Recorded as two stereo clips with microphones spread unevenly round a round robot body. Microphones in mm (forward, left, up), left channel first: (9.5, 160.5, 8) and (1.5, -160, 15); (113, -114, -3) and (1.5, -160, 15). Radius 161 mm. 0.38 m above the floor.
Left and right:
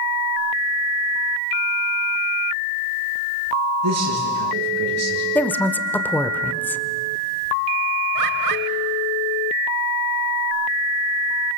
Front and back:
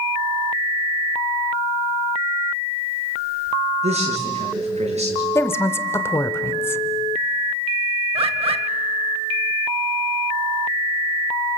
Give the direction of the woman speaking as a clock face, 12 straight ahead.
12 o'clock.